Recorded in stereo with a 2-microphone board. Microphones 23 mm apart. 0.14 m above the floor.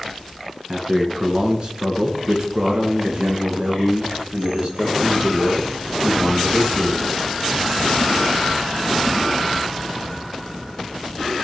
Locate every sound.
0.7 s a man speaking: 30° right (ahead or behind), 1.8 m; by 7.0 s 65° right (ahead or behind), 4.5 m